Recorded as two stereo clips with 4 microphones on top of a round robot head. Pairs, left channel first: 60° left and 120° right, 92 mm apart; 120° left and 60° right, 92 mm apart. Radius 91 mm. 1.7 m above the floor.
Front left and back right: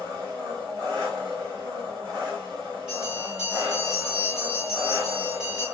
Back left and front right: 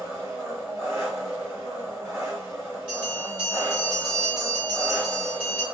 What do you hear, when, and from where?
0.0 s an engine running: 125° right, 1.7 m
2.9 s a bell: 45° right, 0.9 m